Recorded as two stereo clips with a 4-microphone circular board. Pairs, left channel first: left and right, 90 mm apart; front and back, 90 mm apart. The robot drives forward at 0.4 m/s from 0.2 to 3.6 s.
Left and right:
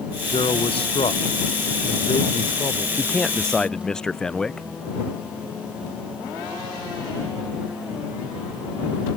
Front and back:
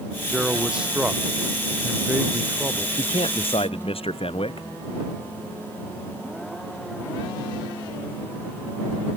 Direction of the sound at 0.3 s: 95° left.